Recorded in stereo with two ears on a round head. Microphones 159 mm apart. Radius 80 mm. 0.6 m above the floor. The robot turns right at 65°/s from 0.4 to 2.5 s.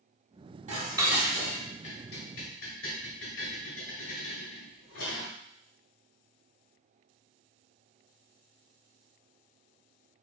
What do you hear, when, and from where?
0.7 s dishes clattering: 35° right (ahead or behind), 1.9 m; by 5.3 s 75° left (ahead or behind), 1.9 m